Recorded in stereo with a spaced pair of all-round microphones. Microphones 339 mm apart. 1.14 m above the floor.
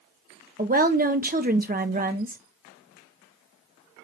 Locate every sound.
0.6 s a woman speaking: 25° right (ahead or behind), 0.8 m